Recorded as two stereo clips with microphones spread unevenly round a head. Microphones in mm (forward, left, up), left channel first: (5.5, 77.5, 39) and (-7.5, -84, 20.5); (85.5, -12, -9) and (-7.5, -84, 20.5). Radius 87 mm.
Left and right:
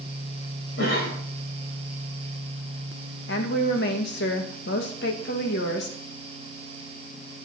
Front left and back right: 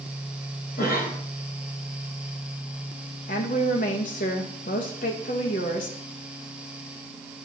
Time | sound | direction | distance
0.8 | a cough | 60° left | 6 m
3.3 | a woman speaking | 60° left | 2 m